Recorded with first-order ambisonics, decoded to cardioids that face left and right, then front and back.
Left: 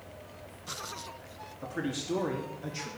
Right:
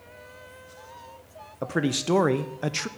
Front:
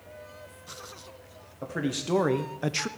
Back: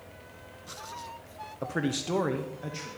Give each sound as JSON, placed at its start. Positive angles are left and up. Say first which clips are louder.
{"t": 1.6, "sound": "a man speaking", "louder": "right 9 dB, even", "azimuth_deg": -105, "distance_m": 0.9}